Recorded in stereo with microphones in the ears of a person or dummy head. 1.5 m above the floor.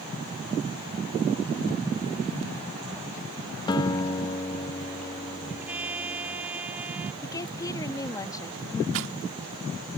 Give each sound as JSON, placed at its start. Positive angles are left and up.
{"t": 3.7, "sound": "a guitar", "side_deg": 25}
{"t": 5.5, "sound": "a trumpet", "side_deg": -5}
{"t": 7.2, "sound": "a woman speaking", "side_deg": 20}
{"t": 8.9, "sound": "a rattle", "side_deg": -70}